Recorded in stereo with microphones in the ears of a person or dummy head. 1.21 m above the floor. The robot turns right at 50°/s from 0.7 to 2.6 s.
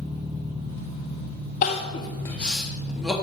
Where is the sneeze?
I don't hear a sneeze.